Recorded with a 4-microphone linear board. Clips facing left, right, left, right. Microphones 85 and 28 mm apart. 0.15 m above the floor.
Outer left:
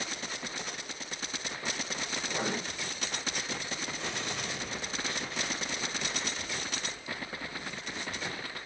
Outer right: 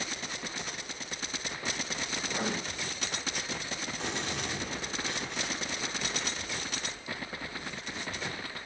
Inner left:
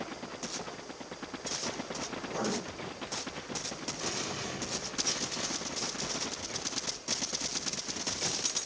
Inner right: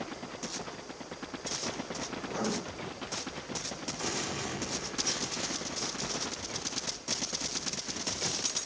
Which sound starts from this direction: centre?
Writing, at 2.2 s.